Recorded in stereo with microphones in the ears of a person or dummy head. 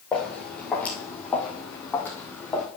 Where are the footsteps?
10° left (ahead or behind), 2.5 m; by 2.7 s 15° left (ahead or behind), 4 m.